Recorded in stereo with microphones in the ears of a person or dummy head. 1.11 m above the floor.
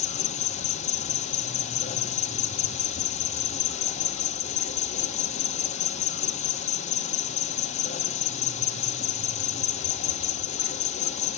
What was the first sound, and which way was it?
An insect, 45° left (ahead or behind).